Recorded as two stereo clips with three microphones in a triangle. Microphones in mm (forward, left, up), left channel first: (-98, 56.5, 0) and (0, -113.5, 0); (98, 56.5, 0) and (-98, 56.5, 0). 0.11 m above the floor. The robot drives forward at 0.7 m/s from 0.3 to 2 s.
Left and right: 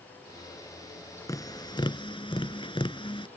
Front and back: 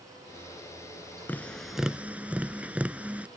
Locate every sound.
1.3 s tapping: 70° left; by 3.3 s 105° left